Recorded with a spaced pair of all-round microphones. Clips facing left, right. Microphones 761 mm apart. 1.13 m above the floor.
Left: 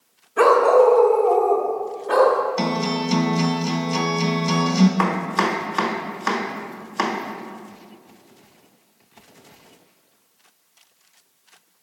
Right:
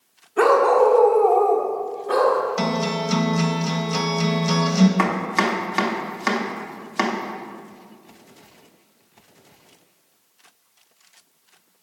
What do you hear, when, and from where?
0.4 s a dog barking: 15° left (ahead or behind), 0.6 m; by 2.4 s 5° left (ahead or behind), 1.4 m
2.6 s a guitar: 20° right (ahead or behind), 0.7 m
5.0 s chopping: 55° right (ahead or behind), 1.0 m